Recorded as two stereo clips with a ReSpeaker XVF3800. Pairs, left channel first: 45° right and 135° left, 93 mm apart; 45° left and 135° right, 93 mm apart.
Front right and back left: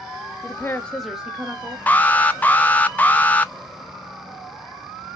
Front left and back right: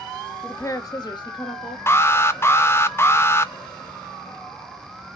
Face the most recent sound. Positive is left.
turn(degrees=10)